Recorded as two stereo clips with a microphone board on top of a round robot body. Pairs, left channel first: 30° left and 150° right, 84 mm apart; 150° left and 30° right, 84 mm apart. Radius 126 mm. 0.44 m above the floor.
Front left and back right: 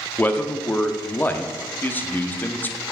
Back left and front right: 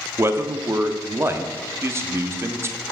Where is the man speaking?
15° right, 0.8 m.